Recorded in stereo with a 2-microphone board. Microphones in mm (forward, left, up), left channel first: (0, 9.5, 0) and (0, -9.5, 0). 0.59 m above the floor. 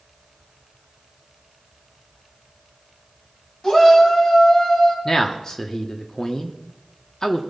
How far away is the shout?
About 3.5 m.